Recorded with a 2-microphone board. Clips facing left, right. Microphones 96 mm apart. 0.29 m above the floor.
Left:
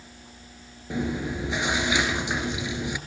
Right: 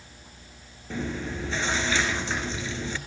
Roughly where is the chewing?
Centre.